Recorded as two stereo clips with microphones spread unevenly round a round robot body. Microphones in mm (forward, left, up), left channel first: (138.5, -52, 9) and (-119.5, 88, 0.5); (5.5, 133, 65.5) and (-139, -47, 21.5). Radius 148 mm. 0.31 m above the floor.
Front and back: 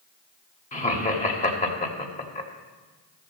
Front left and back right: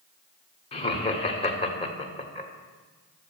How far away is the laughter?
About 1.4 m.